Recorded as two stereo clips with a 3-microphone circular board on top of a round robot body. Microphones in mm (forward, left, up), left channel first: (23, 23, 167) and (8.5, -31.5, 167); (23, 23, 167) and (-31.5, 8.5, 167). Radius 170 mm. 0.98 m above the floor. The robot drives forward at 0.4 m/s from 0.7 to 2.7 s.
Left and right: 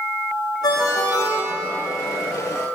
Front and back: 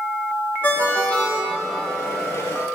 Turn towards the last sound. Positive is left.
turn(degrees=135)